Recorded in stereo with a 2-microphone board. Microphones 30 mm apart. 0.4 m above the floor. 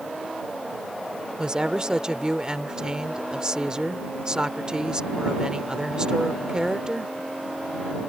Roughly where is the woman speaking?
Right.